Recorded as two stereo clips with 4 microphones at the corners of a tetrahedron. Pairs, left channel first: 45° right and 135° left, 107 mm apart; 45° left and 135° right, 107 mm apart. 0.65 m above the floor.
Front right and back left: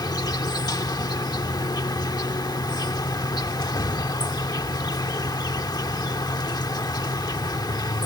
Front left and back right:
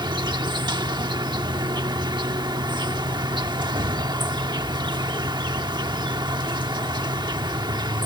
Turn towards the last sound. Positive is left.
turn(degrees=-95)